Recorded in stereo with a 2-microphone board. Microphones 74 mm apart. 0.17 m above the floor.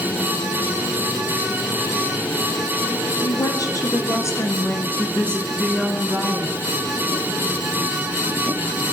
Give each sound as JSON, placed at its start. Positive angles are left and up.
{"t": 3.2, "sound": "a woman speaking", "side_deg": 55, "distance_m": 3.5}